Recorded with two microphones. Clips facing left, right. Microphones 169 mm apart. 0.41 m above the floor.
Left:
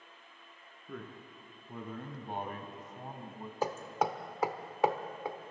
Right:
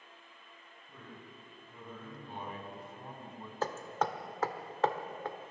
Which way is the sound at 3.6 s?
10° left (ahead or behind).